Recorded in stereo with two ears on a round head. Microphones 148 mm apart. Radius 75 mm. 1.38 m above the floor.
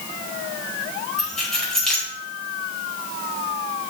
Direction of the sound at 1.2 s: 5° left (ahead or behind).